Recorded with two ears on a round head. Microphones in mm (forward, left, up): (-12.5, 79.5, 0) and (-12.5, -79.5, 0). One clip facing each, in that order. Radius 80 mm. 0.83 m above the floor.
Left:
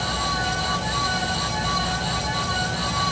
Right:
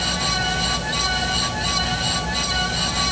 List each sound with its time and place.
Only background noise.